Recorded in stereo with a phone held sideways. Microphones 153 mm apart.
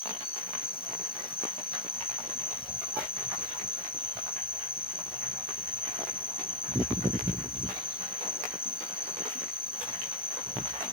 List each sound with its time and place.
0.0 s an insect: 85° left